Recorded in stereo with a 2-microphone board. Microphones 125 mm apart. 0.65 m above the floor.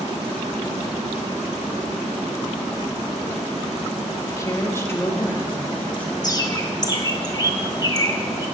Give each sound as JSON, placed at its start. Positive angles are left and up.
{"t": 4.3, "sound": "a woman speaking", "side_deg": 25, "distance_m": 0.8}
{"t": 6.2, "sound": "a bird", "side_deg": 30, "distance_m": 0.8}